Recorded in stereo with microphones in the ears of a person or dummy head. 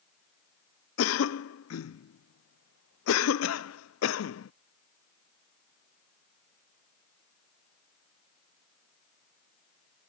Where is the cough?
75° left (ahead or behind).